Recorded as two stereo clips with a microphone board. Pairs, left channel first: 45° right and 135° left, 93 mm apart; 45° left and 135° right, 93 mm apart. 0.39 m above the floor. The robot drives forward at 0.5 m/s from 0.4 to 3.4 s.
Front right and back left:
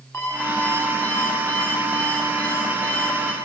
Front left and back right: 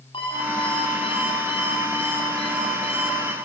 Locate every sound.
0.1 s an alarm clock: 20° left, 7 m; by 3.4 s 25° left, 5.5 m